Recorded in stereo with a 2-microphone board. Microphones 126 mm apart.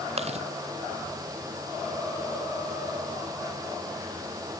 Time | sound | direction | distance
0.2 | chewing | 55° right (ahead or behind) | ?